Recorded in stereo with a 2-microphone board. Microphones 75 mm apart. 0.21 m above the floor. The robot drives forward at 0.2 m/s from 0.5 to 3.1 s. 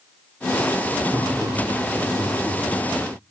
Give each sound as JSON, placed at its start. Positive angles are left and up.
{"t": 1.1, "sound": "laughter", "side_deg": 10, "distance_m": 7.5}